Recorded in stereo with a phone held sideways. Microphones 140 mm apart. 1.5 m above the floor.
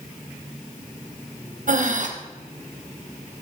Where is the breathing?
60° right (ahead or behind), 0.8 m.